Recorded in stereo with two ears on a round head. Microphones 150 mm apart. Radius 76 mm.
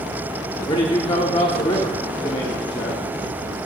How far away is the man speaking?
About 0.9 m.